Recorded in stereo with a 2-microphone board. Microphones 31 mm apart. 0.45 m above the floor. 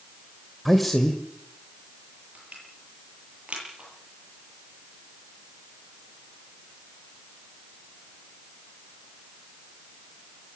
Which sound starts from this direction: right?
Crushing, at 2.4 s.